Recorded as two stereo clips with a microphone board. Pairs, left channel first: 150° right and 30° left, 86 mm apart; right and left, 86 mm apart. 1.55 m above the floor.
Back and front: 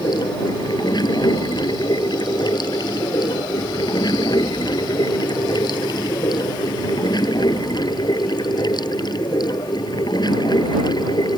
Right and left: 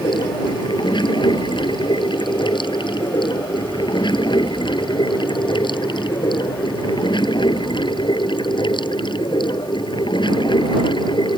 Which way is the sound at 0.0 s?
115° right.